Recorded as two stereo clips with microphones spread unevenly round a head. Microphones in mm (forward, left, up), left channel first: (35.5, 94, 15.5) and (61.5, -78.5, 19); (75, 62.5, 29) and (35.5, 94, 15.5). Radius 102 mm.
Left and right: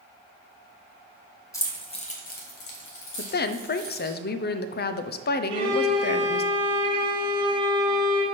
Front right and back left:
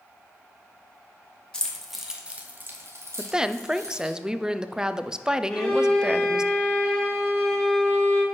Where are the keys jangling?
25° left, 1.5 m; by 4.2 s 125° left, 2.5 m.